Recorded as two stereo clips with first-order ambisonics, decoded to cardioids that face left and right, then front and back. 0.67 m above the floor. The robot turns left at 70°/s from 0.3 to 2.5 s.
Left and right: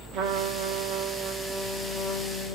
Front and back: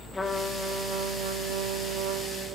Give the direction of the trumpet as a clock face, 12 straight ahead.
3 o'clock.